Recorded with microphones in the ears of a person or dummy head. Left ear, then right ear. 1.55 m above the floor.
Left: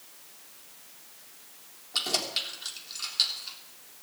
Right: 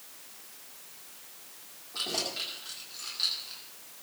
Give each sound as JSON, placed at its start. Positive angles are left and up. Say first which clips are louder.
{"t": 1.9, "sound": "keys jangling", "louder": "left 4 dB", "side_deg": 65, "distance_m": 3.5}